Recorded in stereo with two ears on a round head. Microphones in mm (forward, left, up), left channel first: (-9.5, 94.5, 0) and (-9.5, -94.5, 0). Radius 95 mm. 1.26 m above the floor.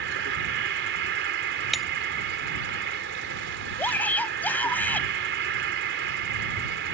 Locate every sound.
0.0 s an insect: 60° right (ahead or behind)
1.7 s breaking glass: centre (ahead or behind)
3.8 s a shout: 10° left (ahead or behind)